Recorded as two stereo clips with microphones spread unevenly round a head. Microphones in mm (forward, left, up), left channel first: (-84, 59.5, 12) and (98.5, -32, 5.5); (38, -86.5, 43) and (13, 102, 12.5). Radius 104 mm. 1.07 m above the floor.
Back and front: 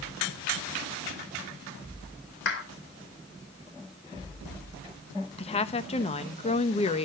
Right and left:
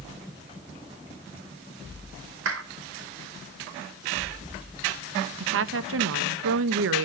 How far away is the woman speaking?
About 0.8 m.